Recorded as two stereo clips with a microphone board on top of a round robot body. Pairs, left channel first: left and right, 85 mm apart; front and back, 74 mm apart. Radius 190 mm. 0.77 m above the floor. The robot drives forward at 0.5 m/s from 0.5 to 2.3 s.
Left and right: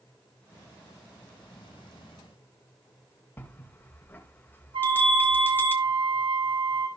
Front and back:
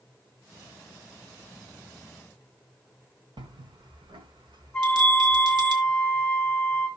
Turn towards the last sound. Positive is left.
turn(degrees=-80)